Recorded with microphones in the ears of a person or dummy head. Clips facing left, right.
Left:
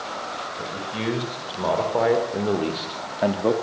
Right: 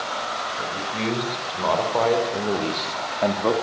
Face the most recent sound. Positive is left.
turn(degrees=10)  # may be behind; listen again after turning